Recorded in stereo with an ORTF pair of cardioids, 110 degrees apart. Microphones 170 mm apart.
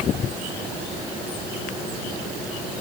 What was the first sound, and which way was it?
Only background noise.